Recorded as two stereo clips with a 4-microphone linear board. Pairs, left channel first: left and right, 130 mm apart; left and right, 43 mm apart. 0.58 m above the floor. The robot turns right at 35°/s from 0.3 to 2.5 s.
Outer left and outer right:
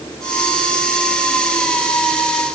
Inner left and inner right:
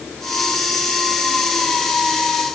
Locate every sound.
Only background noise.